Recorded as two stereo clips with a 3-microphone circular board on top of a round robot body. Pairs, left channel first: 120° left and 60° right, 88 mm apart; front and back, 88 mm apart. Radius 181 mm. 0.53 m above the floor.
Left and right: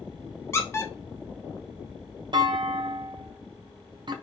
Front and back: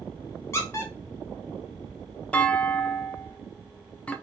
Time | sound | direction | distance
0.5 | a squeak | 60° left | 0.6 m
2.3 | a clunk | 75° right | 0.6 m